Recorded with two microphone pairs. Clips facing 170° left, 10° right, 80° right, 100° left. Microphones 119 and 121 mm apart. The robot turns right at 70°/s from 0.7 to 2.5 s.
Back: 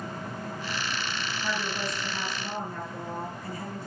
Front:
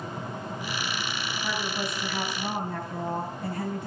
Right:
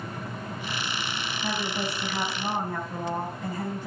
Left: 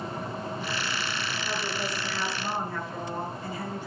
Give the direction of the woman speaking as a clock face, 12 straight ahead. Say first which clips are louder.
Front 1 dB, right 4 dB; 4 o'clock.